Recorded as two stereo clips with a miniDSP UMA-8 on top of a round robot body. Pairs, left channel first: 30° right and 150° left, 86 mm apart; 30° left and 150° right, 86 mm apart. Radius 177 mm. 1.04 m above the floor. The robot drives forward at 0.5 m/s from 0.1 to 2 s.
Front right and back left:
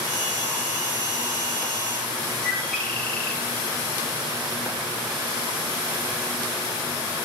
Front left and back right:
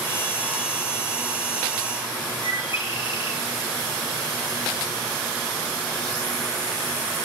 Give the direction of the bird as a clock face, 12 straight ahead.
11 o'clock.